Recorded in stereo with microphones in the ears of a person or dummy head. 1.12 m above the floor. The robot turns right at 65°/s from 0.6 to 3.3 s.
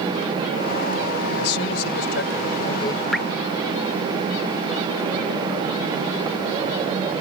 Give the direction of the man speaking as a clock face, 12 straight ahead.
10 o'clock.